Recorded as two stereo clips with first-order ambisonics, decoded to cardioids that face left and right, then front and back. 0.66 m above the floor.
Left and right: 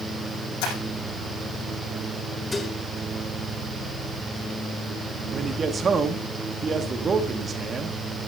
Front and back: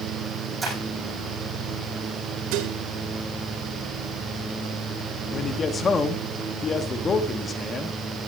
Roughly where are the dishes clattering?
Behind.